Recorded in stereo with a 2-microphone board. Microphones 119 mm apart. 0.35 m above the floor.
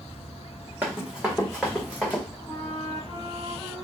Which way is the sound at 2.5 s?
30° left (ahead or behind).